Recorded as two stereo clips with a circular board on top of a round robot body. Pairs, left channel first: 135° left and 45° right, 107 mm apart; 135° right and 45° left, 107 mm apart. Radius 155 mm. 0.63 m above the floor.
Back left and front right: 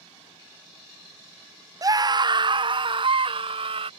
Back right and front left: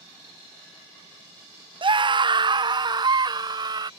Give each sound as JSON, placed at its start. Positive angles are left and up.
{"t": 1.8, "sound": "a scream", "azimuth_deg": 10}